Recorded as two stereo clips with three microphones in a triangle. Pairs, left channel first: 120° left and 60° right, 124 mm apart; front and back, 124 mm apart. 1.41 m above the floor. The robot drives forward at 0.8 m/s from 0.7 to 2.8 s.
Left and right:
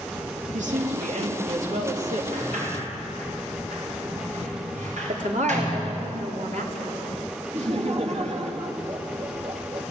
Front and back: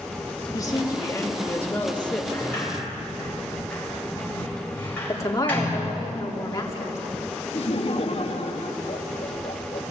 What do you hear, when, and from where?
0.5 s a woman speaking: 60° right, 3.5 m; by 2.2 s 80° right, 3 m
2.3 s a sliding door: 75° right, 8 m
5.1 s a woman speaking: 65° right, 4 m
7.5 s laughter: 35° right, 2.5 m